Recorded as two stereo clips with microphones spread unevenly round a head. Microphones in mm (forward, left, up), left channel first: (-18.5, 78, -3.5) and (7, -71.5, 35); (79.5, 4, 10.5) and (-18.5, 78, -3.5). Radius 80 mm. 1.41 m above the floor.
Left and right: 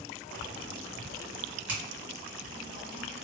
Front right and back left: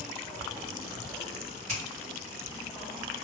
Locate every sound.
1.7 s a finger snap: 160° right, 1.6 m